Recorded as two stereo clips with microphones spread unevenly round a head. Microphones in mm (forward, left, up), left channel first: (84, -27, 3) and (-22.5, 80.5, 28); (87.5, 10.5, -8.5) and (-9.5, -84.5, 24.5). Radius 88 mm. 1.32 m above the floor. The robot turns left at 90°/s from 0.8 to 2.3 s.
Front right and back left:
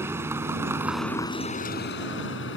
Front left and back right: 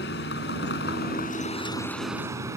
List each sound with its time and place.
0.0 s a vehicle: 65° left; by 2.6 s 70° right